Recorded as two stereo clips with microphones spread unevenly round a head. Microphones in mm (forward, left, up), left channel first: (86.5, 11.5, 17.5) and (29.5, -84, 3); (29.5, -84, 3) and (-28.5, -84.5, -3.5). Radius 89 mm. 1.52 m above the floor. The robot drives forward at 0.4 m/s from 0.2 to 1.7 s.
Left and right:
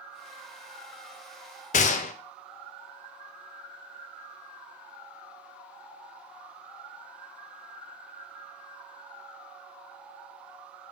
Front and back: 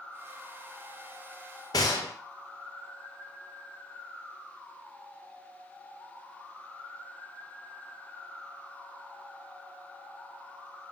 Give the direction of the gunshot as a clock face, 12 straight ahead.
10 o'clock.